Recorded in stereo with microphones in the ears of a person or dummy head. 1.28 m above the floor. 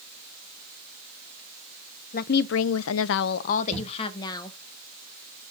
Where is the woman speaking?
45° left (ahead or behind), 0.6 m; by 4.6 s 25° left (ahead or behind), 1.1 m.